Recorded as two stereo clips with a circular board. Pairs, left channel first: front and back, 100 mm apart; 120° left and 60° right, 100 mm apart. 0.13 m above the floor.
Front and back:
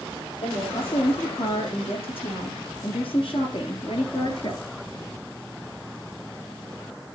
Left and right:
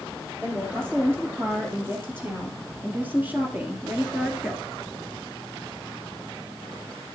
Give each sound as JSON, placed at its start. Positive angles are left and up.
{"t": 0.4, "sound": "a woman speaking", "azimuth_deg": 10, "distance_m": 4.5}